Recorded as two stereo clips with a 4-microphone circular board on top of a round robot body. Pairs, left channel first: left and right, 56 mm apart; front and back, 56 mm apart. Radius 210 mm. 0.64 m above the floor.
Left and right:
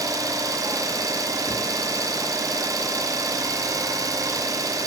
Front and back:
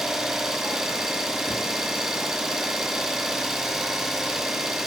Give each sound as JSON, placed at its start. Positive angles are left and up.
{"t": 0.0, "sound": "an engine running", "azimuth_deg": -100, "distance_m": 1.2}